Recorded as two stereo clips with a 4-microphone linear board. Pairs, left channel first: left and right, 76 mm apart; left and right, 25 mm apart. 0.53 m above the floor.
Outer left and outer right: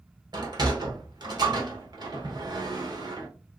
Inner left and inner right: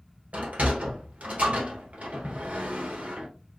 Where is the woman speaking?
No woman speaking in this recording.